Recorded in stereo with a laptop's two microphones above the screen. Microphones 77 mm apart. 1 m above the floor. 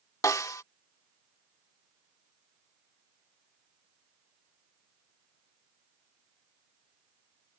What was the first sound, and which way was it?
A snare drum, 45° left (ahead or behind).